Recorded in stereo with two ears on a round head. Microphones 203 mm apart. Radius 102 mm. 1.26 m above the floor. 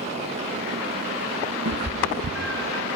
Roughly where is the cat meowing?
Right.